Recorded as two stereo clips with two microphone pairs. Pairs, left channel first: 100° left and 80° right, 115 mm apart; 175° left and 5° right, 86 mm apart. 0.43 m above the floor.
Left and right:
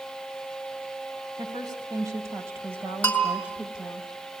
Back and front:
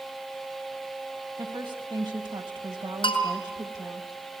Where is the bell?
170° left, 4.5 m.